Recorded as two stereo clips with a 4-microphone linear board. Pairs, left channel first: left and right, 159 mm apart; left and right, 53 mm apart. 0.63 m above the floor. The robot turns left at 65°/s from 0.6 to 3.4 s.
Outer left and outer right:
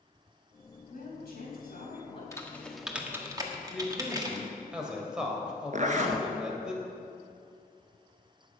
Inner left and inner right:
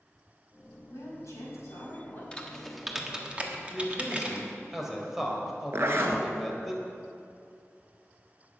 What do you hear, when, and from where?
0.9 s a woman speaking: 115° left, 5 m; by 2.2 s 30° left, 5 m
2.3 s typing on a keyboard: 20° left (ahead or behind), 1.4 m; by 4.5 s 25° right (ahead or behind), 1.4 m
3.7 s a man speaking: 5° right (ahead or behind), 2.5 m
5.7 s a zipper: 50° right (ahead or behind), 1.4 m